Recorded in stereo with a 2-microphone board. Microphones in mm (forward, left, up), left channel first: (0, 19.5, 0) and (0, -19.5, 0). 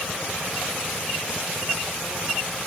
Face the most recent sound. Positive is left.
No sound to turn to.